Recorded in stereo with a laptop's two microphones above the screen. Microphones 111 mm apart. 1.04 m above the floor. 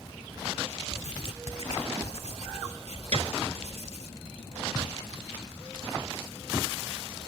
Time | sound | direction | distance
0.9 | writing | 75° left (ahead or behind) | ?
3.1 | a piano | 70° right (ahead or behind) | ?